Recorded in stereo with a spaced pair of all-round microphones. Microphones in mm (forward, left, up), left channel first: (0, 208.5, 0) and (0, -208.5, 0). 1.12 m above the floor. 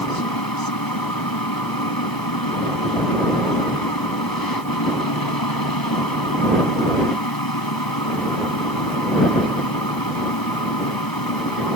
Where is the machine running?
55° left (ahead or behind).